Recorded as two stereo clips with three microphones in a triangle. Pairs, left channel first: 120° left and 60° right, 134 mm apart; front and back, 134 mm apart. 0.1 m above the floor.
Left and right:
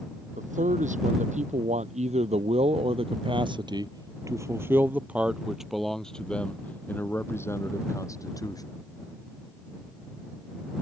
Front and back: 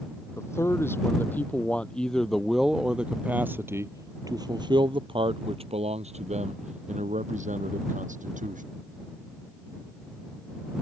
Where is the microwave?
I don't hear a microwave.